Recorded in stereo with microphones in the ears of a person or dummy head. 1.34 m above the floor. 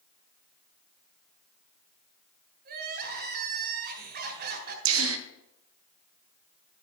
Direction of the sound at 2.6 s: 50° right (ahead or behind).